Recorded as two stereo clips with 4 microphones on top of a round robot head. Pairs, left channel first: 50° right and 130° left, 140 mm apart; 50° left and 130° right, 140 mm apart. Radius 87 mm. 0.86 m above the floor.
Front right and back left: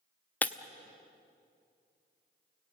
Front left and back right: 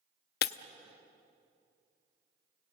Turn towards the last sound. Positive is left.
turn(degrees=30)